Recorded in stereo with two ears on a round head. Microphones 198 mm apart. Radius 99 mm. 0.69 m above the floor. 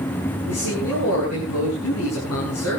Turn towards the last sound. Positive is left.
turn(degrees=75)  # may be behind; listen again after turning